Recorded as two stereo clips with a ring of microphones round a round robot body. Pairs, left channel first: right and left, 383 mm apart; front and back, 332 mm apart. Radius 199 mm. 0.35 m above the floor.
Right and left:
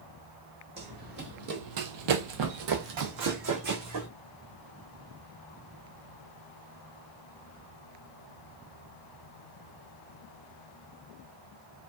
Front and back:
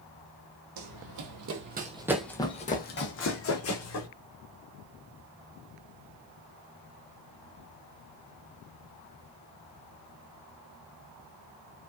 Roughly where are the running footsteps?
Behind.